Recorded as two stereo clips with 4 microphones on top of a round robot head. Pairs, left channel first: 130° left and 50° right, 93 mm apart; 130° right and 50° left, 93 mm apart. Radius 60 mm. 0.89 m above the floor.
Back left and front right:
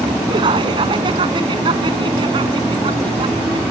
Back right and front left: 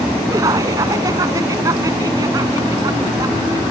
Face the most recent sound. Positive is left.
turn(degrees=-10)